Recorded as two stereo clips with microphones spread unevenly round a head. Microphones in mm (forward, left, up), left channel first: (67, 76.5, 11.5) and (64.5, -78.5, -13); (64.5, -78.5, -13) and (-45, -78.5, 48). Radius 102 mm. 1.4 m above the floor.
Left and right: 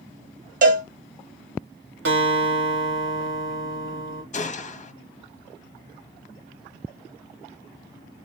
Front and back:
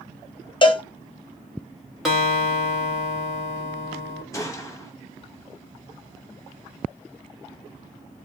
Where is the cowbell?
60° right, 1.0 m.